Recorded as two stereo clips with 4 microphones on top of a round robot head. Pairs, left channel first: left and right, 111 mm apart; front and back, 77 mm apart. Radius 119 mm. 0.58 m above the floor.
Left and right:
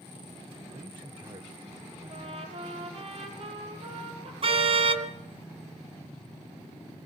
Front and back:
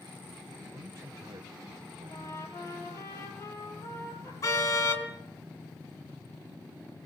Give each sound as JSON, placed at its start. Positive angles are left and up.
{"t": 0.7, "sound": "a man speaking", "azimuth_deg": -130, "distance_m": 3.0}
{"t": 2.1, "sound": "a trumpet", "azimuth_deg": -60, "distance_m": 7.0}
{"t": 4.4, "sound": "a car horn", "azimuth_deg": -55, "distance_m": 3.5}